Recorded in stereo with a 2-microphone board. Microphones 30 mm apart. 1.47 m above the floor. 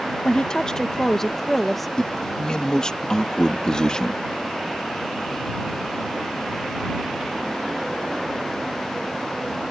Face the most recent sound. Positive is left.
turn(degrees=25)  # may be behind; listen again after turning